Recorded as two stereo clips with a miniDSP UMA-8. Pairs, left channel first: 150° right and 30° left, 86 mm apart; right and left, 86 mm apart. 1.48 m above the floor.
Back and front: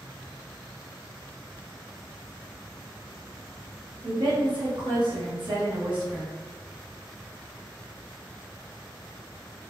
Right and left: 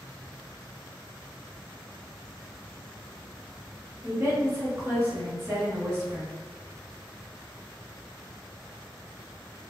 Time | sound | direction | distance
4.0 | a woman speaking | 30° left | 0.9 m